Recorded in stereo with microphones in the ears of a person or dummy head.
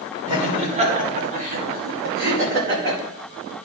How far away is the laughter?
About 2.5 m.